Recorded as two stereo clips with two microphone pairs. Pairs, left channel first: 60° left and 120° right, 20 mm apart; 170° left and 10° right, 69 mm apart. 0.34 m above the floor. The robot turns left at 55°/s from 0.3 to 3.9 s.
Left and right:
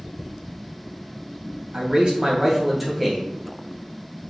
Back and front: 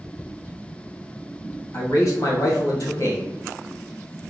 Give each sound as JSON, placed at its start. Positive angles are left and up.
{"t": 1.7, "sound": "a man speaking", "azimuth_deg": -150, "distance_m": 1.7}